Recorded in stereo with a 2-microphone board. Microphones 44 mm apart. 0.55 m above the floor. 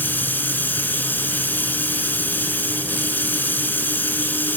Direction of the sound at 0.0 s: 45° left (ahead or behind).